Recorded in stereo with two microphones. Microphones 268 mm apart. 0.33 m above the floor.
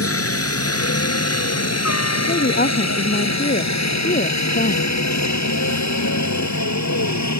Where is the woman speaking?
35° left (ahead or behind).